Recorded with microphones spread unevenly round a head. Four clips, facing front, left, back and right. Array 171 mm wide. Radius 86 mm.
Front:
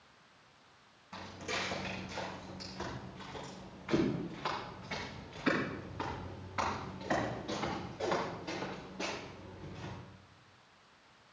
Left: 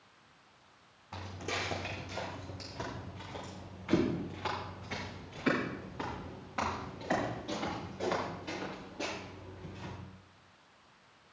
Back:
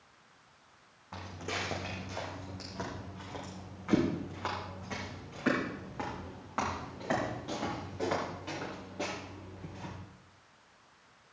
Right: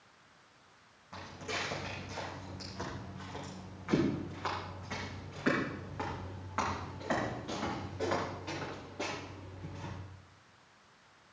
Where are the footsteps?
155° left, 4.5 m; by 9.9 s 165° right, 11 m.